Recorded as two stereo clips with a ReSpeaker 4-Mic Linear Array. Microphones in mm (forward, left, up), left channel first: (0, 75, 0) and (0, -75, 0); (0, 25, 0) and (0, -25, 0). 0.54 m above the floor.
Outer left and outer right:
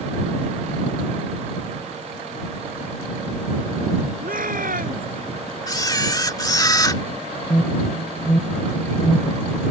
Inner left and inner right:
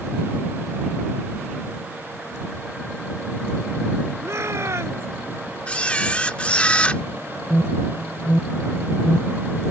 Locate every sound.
4.2 s a shout: 65° right (ahead or behind)
5.7 s a camera shutter: 25° left (ahead or behind)
7.5 s an alarm: 20° left (ahead or behind)